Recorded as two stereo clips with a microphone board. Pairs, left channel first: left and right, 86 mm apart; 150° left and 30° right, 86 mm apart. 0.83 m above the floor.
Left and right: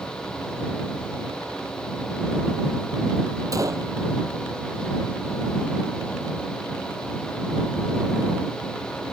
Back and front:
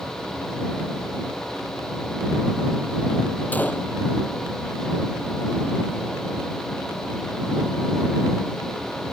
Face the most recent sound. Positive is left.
turn(degrees=-140)